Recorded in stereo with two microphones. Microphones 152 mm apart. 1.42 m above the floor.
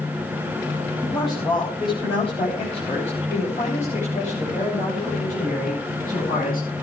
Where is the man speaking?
25° left (ahead or behind), 9 m; by 6.7 s 75° left (ahead or behind), 11.5 m.